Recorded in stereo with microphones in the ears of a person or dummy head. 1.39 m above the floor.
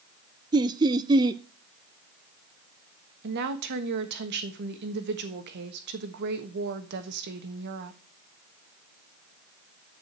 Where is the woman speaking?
60° right (ahead or behind), 1.4 m.